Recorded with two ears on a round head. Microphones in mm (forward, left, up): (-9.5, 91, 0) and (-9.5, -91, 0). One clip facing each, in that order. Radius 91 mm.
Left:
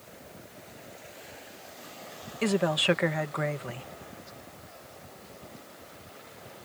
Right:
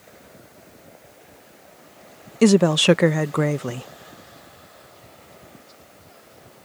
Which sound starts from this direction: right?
A woman speaking, at 2.4 s.